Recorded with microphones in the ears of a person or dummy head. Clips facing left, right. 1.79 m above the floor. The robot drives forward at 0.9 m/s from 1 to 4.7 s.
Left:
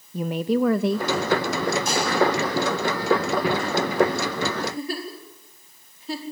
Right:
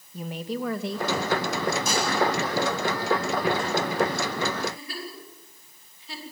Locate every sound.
0.1 s a woman speaking: 50° left (ahead or behind), 0.8 m; by 1.1 s 55° left (ahead or behind), 0.7 m
1.9 s dishes clattering: 85° right, 9.5 m
4.6 s a giggle: 40° left (ahead or behind), 4.5 m